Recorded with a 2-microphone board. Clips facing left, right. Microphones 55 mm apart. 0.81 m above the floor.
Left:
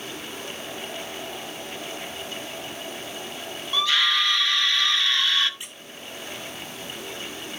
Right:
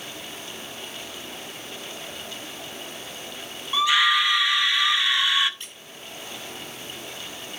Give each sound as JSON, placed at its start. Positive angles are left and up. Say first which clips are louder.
{"t": 3.7, "sound": "a scream", "louder": "right 3 dB", "side_deg": -15, "distance_m": 1.4}
{"t": 5.6, "sound": "a squeak", "louder": "left 1 dB", "side_deg": 15, "distance_m": 2.0}